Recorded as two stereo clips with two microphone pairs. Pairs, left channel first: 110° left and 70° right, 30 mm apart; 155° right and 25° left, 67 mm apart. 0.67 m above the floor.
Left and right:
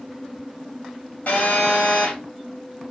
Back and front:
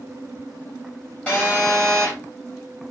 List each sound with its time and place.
1.3 s a phone buzzing: 140° left, 3.5 m